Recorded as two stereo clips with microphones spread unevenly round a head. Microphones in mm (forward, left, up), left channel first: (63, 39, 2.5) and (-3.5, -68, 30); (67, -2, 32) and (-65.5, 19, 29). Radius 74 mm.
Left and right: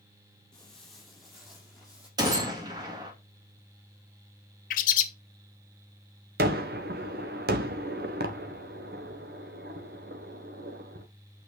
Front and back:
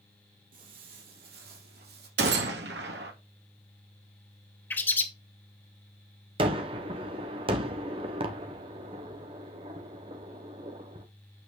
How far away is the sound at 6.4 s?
About 1.5 m.